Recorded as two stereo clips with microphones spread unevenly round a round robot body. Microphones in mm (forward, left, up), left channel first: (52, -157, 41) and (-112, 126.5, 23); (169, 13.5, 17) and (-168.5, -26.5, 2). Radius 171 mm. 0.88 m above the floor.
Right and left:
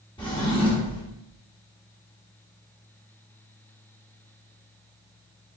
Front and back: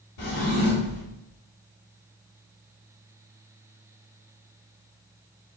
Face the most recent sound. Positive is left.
turn(degrees=20)